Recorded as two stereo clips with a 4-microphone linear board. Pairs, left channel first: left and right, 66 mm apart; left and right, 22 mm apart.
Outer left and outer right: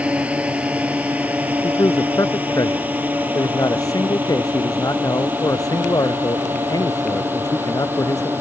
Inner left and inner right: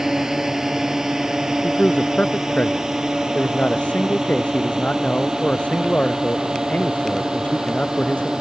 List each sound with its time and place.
0.0 s a drone: 20° right (ahead or behind); by 8.4 s 30° right (ahead or behind)
1.6 s a man speaking: 65° left (ahead or behind)